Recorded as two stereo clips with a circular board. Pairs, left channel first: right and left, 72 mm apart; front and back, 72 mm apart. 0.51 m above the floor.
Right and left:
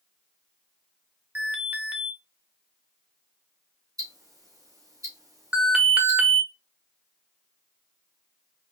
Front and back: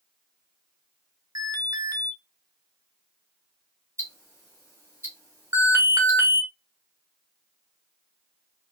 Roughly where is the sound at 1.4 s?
Behind left.